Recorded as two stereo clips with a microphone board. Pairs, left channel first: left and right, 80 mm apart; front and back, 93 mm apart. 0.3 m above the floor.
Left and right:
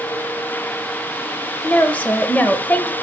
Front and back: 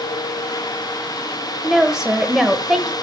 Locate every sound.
1.6 s a woman speaking: 110° left, 0.9 m